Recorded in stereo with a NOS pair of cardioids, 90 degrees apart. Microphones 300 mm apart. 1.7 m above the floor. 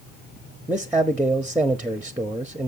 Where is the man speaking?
5° right, 0.7 m.